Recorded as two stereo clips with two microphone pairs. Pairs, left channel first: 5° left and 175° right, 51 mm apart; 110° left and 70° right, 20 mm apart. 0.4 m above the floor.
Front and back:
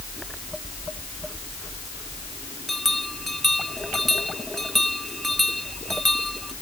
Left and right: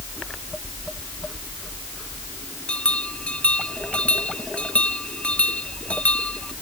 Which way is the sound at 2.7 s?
90° left.